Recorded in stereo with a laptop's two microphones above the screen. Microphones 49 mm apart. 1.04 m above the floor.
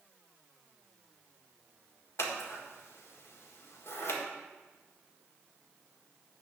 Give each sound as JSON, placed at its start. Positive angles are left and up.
{"t": 2.2, "sound": "scissors", "side_deg": 60, "distance_m": 1.6}